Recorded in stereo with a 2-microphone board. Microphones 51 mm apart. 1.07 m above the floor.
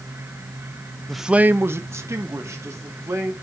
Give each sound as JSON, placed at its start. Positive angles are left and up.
{"t": 1.1, "sound": "a man speaking", "side_deg": 10, "distance_m": 0.6}